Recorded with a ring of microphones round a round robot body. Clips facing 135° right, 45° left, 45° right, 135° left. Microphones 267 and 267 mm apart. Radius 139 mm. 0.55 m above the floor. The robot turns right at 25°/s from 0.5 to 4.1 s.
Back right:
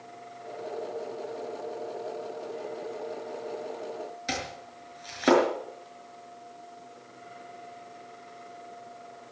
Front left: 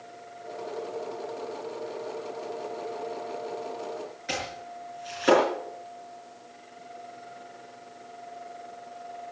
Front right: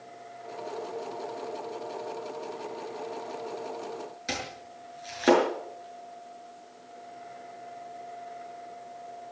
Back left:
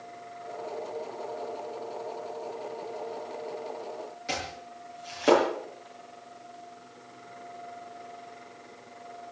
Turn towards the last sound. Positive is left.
turn(degrees=-105)